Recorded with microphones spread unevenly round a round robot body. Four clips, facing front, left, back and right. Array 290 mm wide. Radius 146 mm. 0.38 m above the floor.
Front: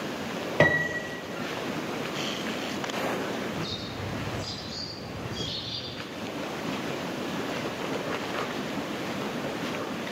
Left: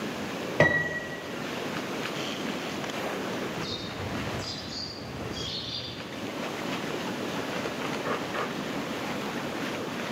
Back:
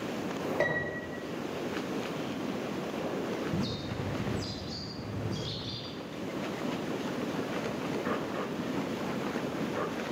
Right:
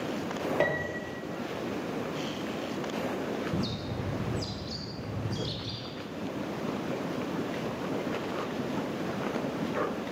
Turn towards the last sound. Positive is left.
turn(degrees=-135)